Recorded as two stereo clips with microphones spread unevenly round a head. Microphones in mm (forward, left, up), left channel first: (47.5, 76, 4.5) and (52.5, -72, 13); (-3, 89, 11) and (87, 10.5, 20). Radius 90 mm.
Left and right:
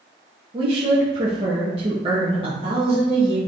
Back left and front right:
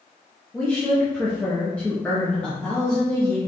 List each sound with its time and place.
0.5 s a woman speaking: 145° right, 0.8 m